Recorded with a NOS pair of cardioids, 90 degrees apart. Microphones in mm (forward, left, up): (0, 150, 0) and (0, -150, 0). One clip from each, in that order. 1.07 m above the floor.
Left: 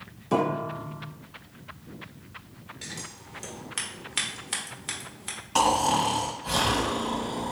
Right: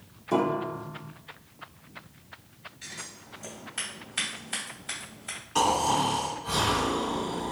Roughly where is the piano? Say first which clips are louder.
Even; ahead.